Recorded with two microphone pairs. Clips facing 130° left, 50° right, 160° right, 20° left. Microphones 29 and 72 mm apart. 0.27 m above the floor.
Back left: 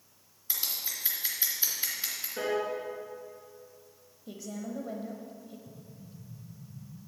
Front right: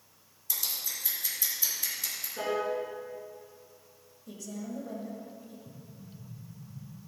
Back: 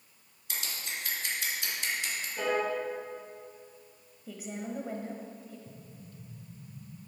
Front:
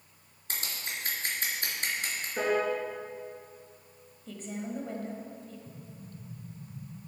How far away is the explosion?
About 1.5 m.